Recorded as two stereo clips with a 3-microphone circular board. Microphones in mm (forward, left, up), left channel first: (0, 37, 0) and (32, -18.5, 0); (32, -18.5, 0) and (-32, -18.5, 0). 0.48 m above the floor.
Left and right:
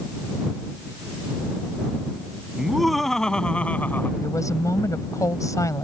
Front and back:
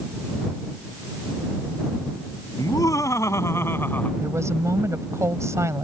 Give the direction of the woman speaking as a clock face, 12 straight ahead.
7 o'clock.